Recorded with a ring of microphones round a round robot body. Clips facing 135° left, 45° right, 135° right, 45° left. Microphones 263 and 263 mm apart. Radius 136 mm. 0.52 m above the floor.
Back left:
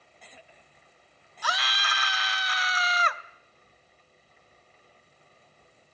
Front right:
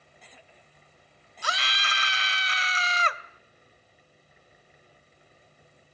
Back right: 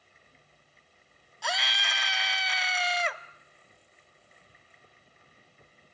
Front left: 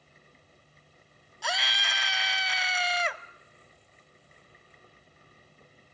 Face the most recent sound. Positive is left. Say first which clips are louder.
# back left 1 dB, even
turn(degrees=-45)